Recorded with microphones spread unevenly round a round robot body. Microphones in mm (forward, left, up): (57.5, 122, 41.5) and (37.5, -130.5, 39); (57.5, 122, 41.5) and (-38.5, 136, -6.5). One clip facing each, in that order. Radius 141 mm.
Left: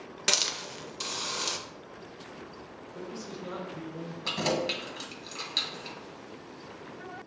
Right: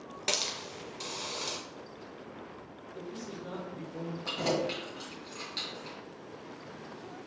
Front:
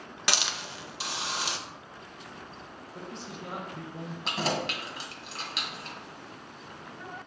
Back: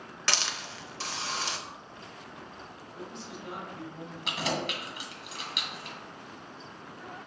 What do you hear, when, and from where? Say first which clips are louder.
0.3 s a hiss: left 1 dB, front 1 dB; 120° left, 0.6 m
2.9 s a man speaking: left 1 dB, front 1 dB; 45° left, 1.5 m
4.2 s keys jangling: left 1 dB, front 2 dB; 60° left, 1.4 m